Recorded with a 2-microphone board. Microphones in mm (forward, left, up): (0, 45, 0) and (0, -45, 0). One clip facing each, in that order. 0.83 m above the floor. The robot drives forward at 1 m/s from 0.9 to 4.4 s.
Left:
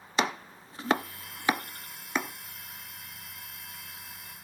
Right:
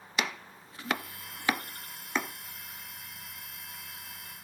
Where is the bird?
I don't hear a bird.